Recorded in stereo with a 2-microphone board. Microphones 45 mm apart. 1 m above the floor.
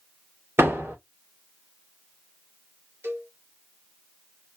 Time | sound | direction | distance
0.6 | a door slam | 75° right (ahead or behind) | 2.5 m
3.0 | a cowbell | 65° right (ahead or behind) | 1.6 m